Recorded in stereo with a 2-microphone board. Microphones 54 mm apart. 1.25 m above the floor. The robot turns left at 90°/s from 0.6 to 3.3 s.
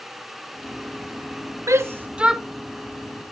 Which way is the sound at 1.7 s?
65° right (ahead or behind).